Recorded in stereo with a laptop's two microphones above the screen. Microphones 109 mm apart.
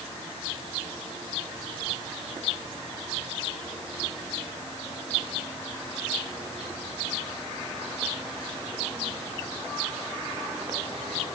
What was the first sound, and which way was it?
Only background noise.